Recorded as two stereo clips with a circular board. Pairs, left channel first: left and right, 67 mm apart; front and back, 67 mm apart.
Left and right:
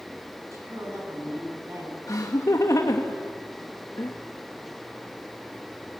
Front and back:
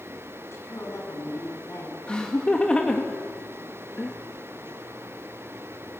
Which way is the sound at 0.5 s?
50° right.